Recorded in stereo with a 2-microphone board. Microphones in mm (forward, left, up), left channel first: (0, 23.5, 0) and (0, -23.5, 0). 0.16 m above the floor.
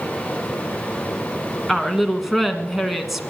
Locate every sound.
1.7 s a woman speaking: 5° right (ahead or behind), 1.4 m